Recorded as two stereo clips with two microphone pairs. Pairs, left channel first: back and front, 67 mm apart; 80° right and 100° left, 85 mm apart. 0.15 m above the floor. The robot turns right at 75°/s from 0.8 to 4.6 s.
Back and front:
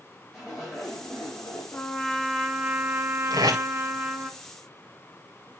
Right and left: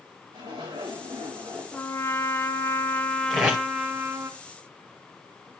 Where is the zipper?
90° left, 6 m; by 1.9 s 175° left, 6 m.